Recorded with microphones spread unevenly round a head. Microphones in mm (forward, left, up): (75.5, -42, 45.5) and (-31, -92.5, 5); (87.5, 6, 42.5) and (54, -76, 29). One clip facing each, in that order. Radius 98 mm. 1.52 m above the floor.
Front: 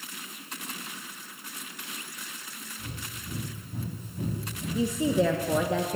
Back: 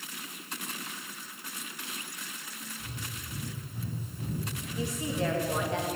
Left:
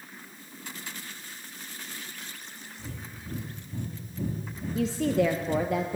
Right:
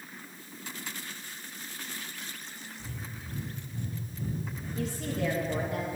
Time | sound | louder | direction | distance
2.8 | breathing | front 4 dB, left 3 dB | 90° left | 4 m
4.8 | a woman speaking | front 8 dB, left 8 dB | 65° left | 1.7 m